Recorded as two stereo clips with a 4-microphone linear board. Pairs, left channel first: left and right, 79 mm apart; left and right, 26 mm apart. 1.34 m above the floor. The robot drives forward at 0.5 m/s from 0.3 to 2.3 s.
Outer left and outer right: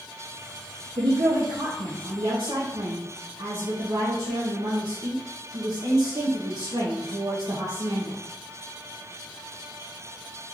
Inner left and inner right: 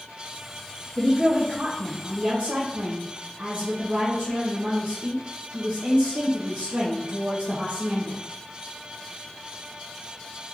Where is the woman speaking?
75° right (ahead or behind), 0.9 m; by 8.2 s 55° right (ahead or behind), 1.1 m.